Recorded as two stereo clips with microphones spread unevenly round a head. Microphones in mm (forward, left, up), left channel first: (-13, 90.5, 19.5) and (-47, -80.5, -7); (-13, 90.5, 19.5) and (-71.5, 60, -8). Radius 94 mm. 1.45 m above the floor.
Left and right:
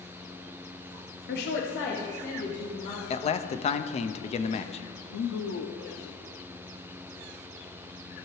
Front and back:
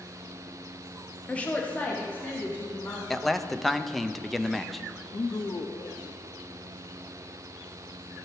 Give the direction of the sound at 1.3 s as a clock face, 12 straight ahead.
8 o'clock.